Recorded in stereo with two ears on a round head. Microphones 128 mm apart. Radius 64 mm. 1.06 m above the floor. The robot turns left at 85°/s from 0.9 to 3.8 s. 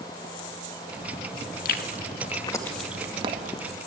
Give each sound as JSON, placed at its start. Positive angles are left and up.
{"t": 1.6, "sound": "chewing", "side_deg": 70, "distance_m": 2.0}